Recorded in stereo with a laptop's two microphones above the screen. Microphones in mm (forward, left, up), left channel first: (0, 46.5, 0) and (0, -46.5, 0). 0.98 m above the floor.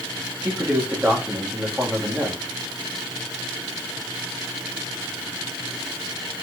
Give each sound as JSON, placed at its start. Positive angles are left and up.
{"t": 0.4, "sound": "a man speaking", "side_deg": -15, "distance_m": 1.5}